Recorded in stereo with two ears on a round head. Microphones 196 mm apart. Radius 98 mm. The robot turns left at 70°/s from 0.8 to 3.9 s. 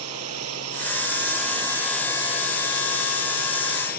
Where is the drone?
100° right; by 4.0 s 45° left.